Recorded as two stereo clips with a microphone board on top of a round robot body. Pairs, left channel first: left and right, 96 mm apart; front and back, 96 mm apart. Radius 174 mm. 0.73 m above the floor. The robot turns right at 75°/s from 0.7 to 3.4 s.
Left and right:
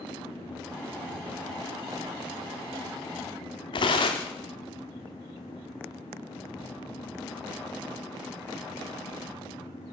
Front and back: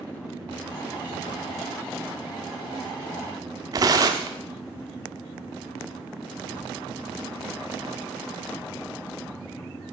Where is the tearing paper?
130° left, 0.6 m.